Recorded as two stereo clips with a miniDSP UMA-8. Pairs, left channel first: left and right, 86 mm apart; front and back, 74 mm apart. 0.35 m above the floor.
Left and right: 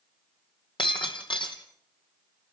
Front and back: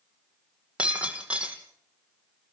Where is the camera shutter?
I don't hear a camera shutter.